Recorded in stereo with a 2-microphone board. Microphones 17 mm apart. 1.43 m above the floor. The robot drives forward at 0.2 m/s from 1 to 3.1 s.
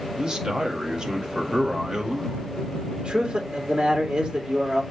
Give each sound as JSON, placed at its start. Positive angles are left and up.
{"t": 0.2, "sound": "a man speaking", "side_deg": -45, "distance_m": 2.0}
{"t": 3.0, "sound": "a man speaking", "side_deg": -60, "distance_m": 2.5}